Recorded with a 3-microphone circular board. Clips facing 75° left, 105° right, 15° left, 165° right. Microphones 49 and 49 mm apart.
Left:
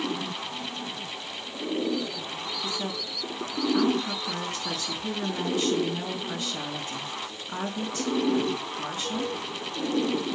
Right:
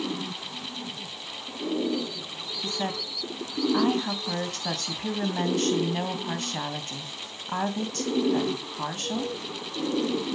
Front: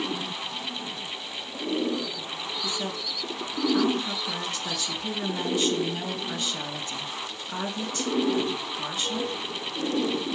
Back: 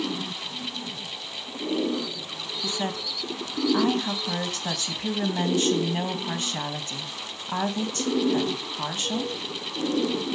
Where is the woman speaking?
125° right, 2.5 m.